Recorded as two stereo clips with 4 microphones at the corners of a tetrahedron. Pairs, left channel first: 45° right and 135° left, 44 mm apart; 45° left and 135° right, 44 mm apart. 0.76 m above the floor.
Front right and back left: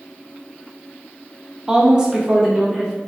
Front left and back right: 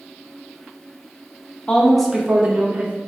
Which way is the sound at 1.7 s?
75° left.